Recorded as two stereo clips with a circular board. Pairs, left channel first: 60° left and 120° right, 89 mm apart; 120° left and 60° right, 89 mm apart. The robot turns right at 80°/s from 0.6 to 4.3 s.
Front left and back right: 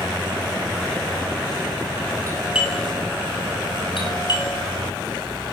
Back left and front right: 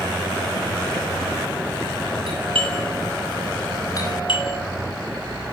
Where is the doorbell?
65° right, 9 m; by 4.6 s 95° left, 9 m.